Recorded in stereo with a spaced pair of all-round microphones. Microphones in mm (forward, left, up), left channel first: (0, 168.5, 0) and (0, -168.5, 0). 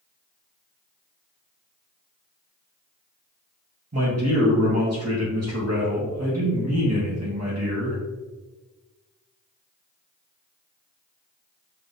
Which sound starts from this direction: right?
A man speaking, at 3.9 s.